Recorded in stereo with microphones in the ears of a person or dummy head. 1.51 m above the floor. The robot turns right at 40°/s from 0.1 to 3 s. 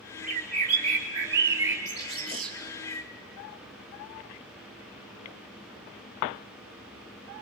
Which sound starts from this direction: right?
A bird, at 0.2 s.